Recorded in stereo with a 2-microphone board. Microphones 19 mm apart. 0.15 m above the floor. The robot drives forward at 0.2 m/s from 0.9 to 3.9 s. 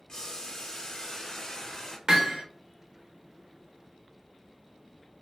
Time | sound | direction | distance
0.1 | boiling | 30° left (ahead or behind) | 1.2 m
2.1 | hammering | 45° right (ahead or behind) | 1.5 m